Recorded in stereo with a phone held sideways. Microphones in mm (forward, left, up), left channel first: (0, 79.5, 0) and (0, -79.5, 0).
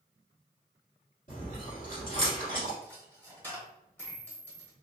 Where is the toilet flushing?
No toilet flushing in this recording.